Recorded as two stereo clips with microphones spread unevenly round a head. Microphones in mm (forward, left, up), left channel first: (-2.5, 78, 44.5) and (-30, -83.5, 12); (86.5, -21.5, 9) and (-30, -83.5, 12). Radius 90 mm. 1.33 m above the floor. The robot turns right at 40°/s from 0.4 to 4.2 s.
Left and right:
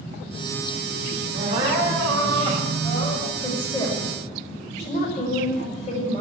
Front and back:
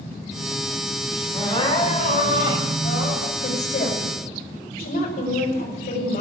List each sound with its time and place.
1.3 s crying: 35° right, 5.5 m; by 3.3 s 40° left, 5.5 m
3.4 s a woman speaking: 5° right, 5.5 m; by 6.2 s 30° left, 5.5 m